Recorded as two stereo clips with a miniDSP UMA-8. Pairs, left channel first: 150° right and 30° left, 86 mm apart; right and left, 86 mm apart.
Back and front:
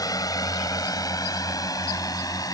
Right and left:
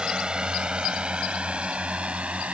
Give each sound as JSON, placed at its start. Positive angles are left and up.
{"t": 0.0, "sound": "a drone", "azimuth_deg": 170}